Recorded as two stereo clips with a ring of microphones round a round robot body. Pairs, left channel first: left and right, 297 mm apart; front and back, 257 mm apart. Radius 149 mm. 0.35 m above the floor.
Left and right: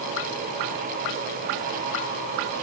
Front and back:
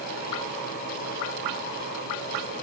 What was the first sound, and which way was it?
Only background noise.